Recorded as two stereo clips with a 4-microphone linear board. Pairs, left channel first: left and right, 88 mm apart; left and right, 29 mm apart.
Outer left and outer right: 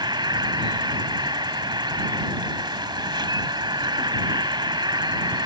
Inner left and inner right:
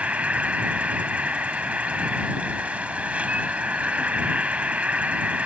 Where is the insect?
60° right (ahead or behind).